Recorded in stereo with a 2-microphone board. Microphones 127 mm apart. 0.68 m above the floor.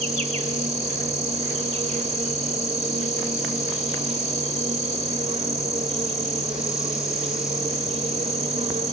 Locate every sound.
0.0 s an insect: 60° right (ahead or behind), 1.4 m